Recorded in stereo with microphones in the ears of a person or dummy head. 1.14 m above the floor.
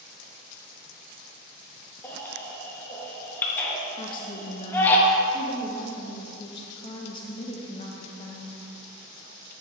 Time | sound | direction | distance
2.0 | a baby crying | 15° left (ahead or behind) | 1.1 m
4.0 | a woman speaking | 35° left (ahead or behind) | 0.6 m